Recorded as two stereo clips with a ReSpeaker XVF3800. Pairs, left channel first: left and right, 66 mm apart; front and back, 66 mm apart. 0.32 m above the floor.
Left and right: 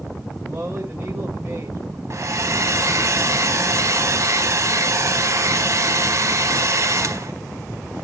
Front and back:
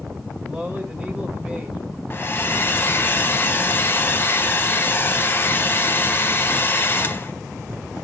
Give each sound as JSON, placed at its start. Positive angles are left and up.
{"t": 0.5, "sound": "a man speaking", "azimuth_deg": -120, "distance_m": 1.3}
{"t": 2.1, "sound": "a hair dryer", "azimuth_deg": -55, "distance_m": 0.8}